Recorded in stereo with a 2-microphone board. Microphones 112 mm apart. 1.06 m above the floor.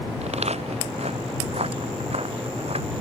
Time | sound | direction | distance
0.2 | footsteps | 75° right (ahead or behind) | ?